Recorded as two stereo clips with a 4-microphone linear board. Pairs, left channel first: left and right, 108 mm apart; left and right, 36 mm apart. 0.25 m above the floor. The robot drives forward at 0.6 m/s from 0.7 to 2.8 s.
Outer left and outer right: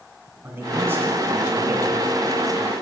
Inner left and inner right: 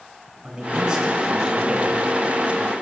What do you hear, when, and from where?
0.4 s a man speaking: 20° right (ahead or behind), 2.5 m; by 2.7 s 15° right (ahead or behind), 3.5 m